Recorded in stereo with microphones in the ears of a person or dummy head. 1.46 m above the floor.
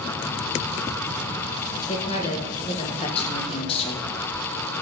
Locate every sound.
1.9 s a woman speaking: 35° left (ahead or behind), 1.3 m